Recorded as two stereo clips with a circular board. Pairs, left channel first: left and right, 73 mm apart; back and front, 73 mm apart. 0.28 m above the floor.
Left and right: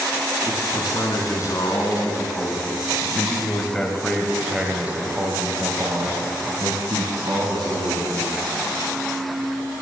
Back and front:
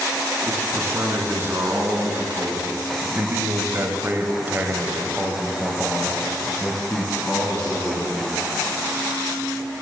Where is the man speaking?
55° left, 3.5 m; by 8.4 s 100° right, 3.5 m.